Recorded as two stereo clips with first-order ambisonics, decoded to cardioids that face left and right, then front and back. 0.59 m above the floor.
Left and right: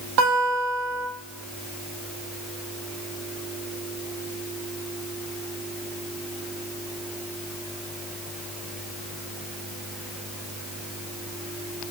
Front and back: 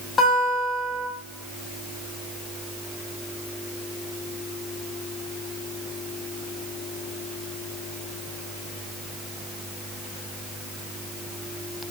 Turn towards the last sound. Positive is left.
turn(degrees=-75)